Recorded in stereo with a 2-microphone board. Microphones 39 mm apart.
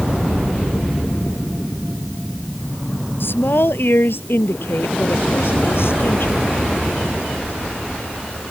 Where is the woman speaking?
60° left (ahead or behind); by 6.4 s 75° left (ahead or behind).